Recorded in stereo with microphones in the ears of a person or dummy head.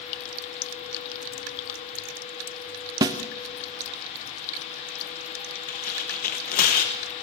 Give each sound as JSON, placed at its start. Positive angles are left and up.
{"t": 3.0, "sound": "a snare drum", "side_deg": -20, "distance_m": 0.6}
{"t": 5.7, "sound": "tearing paper", "side_deg": 45, "distance_m": 1.3}